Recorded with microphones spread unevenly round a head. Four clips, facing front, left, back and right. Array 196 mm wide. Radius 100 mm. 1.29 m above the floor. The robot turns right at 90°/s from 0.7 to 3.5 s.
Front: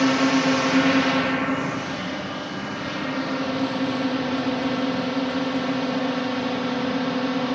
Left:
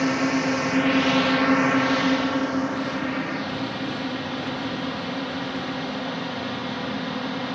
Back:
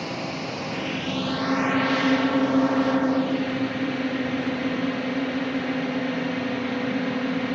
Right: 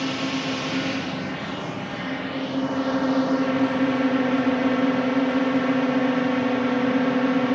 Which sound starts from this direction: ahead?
A drone, at 0.0 s.